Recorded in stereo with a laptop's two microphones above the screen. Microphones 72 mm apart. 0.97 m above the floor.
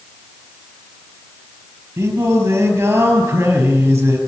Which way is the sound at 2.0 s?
30° right (ahead or behind).